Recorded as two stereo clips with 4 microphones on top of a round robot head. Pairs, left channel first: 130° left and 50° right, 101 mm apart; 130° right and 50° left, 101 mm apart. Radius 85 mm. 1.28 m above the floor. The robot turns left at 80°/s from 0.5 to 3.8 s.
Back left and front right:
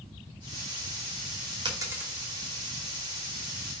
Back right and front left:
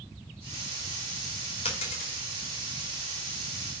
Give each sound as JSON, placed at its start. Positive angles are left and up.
{"t": 1.6, "sound": "a dropped coin", "azimuth_deg": -95, "distance_m": 2.0}